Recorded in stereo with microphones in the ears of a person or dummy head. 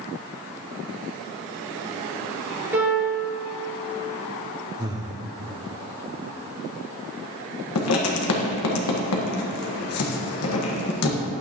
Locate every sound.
2.7 s a piano: 15° right (ahead or behind), 3.5 m
4.8 s breathing: 20° right (ahead or behind), 1.1 m
7.8 s writing: 75° left (ahead or behind), 1.5 m